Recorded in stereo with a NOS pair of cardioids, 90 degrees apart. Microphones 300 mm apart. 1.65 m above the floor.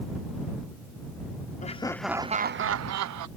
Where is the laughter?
25° left; by 3.3 s 70° right.